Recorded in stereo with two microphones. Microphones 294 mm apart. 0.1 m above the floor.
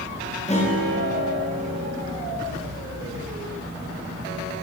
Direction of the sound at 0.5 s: 20° left (ahead or behind).